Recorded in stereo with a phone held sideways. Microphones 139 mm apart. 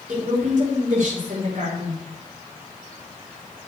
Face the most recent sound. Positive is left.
turn(degrees=-55)  # may be behind; listen again after turning